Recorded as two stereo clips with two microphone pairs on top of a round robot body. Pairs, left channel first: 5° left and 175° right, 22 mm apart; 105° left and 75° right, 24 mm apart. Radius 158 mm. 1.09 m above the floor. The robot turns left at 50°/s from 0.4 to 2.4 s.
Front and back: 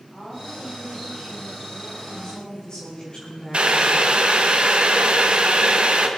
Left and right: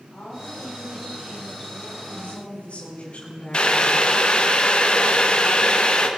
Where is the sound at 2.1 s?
85° left, 3.5 m; by 4.5 s 70° left, 3.5 m.